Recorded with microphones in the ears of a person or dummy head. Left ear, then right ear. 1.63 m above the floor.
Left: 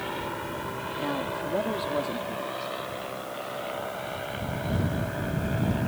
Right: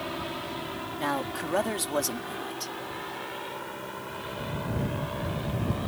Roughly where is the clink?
No clink in this recording.